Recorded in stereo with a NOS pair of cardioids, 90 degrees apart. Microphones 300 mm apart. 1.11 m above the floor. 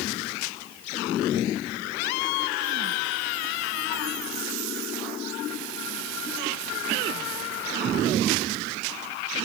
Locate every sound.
Only background noise.